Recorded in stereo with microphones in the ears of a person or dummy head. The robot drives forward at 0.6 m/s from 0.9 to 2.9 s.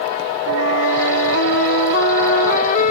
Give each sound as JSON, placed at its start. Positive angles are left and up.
{"t": 0.5, "sound": "a flute", "side_deg": 75}